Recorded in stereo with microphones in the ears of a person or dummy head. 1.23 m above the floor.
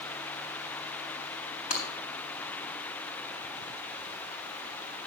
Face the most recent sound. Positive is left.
turn(degrees=45)  # may be behind; listen again after turning